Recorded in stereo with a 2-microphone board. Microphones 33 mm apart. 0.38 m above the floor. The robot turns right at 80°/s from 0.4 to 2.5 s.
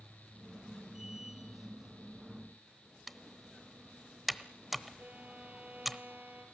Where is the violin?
65° right (ahead or behind), 4.5 m.